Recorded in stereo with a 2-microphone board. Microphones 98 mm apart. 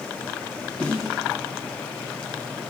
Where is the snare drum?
10° left (ahead or behind), 1.2 m.